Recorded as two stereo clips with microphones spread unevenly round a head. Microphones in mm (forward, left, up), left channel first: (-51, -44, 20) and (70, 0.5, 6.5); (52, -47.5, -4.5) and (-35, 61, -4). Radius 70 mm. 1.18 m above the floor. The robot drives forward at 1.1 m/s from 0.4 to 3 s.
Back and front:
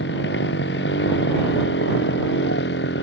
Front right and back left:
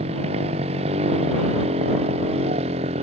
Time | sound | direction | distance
0.0 | a motorcycle | straight behind | ?